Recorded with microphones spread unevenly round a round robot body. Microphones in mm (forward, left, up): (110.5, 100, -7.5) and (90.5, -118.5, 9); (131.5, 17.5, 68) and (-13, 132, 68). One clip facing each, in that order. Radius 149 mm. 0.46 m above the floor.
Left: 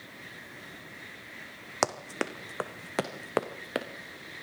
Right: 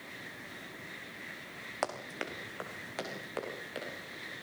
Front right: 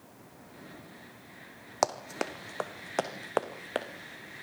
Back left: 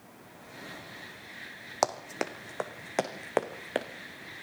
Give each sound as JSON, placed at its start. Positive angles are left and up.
{"t": 1.8, "sound": "running footsteps", "azimuth_deg": 50, "distance_m": 1.8}